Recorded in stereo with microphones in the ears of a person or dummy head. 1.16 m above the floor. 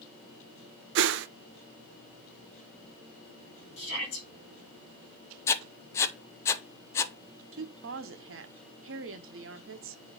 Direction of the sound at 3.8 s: 55° left (ahead or behind).